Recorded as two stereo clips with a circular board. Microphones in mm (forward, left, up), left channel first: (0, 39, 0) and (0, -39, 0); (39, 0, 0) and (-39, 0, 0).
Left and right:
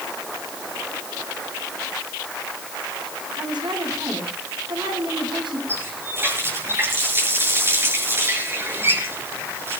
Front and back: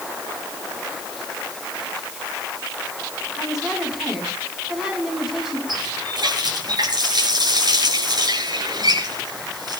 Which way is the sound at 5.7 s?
150° right.